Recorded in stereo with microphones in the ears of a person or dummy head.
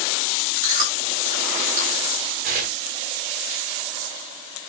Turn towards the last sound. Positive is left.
turn(degrees=-35)  # may be behind; listen again after turning